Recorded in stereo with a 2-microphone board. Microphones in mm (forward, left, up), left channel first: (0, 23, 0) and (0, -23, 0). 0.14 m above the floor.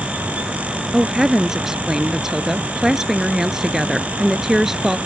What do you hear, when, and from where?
0.9 s a woman speaking: 10° right (ahead or behind)